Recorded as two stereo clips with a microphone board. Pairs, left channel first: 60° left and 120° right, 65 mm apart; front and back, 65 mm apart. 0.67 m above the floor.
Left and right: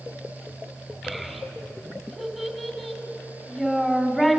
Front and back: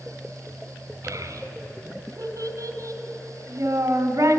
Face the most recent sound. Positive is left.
turn(degrees=145)